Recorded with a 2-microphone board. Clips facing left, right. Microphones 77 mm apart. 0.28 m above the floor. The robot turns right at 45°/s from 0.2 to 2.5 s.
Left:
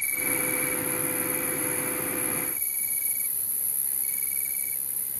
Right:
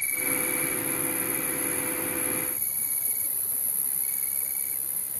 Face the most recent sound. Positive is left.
turn(degrees=-70)